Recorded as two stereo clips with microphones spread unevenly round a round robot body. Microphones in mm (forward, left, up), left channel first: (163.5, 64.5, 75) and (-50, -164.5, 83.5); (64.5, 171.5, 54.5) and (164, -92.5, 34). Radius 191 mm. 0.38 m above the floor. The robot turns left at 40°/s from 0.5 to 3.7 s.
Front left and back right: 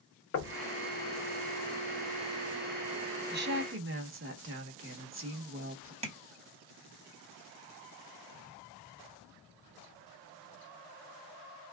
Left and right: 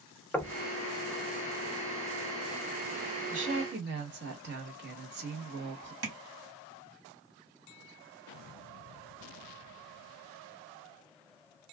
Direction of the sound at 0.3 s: 20° left.